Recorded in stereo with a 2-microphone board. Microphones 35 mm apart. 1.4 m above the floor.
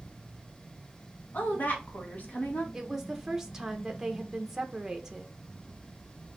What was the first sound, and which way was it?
A woman speaking, 50° left (ahead or behind).